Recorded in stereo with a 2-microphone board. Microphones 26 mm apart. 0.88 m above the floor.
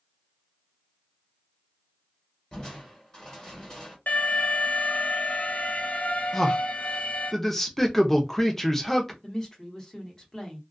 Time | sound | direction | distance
2.5 | crushing | 30° left (ahead or behind) | 1.3 m
4.1 | an alarm | 75° left (ahead or behind) | 0.5 m
6.3 | a man speaking | 5° left (ahead or behind) | 0.6 m
9.2 | a woman speaking | 30° left (ahead or behind) | 1.0 m